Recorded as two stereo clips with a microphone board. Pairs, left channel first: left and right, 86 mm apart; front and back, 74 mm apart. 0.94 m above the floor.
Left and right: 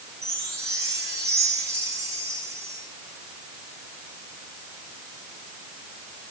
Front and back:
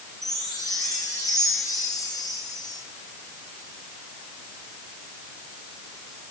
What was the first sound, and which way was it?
A chime, 30° right.